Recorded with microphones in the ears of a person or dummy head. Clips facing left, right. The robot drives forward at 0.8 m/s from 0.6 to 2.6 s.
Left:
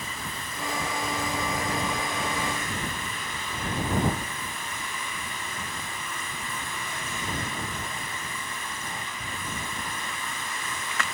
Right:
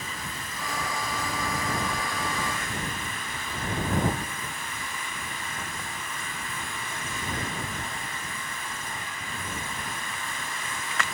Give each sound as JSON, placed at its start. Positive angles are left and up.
{"t": 0.0, "sound": "running water", "side_deg": 60, "distance_m": 6.0}